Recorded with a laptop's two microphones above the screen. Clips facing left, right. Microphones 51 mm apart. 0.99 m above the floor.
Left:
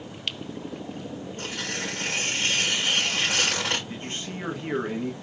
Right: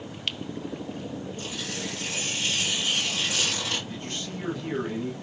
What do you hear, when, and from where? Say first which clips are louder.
1.4 s tearing paper: left 2 dB; 60° left (ahead or behind), 1.6 m
3.9 s a man speaking: left 1 dB; 30° left (ahead or behind), 1.0 m